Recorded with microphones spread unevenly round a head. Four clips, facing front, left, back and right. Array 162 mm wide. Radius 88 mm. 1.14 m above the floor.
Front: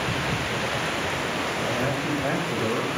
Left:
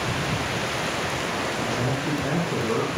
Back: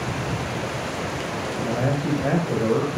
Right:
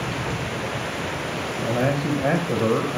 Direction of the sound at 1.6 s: 115° right.